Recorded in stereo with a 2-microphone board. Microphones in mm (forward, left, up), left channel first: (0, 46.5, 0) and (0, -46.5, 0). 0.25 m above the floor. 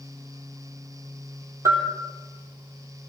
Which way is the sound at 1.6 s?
30° right (ahead or behind).